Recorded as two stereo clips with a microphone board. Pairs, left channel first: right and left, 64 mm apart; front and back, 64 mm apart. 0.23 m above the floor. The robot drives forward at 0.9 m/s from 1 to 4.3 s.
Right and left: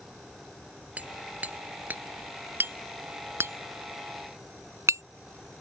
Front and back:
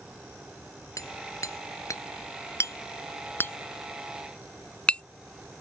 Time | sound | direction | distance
1.0 | hammering | 25° left | ?